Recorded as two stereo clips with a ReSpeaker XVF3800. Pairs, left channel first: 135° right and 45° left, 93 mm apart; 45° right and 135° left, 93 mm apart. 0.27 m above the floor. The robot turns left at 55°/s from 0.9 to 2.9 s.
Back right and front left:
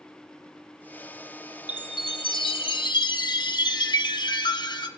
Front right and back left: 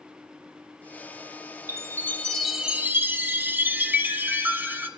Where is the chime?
95° right, 1.1 m; by 4.9 s 160° right, 1.1 m.